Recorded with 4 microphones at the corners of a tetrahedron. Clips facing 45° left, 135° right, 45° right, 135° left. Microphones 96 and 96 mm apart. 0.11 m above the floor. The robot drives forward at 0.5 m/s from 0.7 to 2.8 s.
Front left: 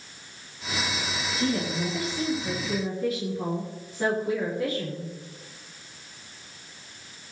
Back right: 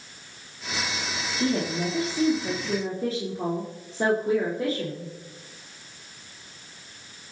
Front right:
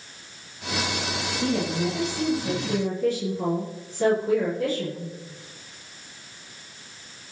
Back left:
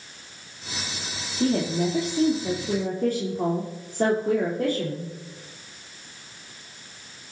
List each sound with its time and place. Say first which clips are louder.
1.4 s a woman speaking: back right 2 dB, back left 3 dB; 165° left, 4.5 m; by 5.1 s 170° left, 5.5 m